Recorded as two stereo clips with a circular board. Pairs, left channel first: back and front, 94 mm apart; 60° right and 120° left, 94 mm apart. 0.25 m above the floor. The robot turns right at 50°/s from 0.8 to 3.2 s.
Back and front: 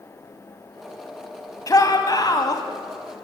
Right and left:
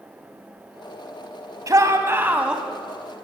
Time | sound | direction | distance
1.7 | a shout | 150° left | 1.7 m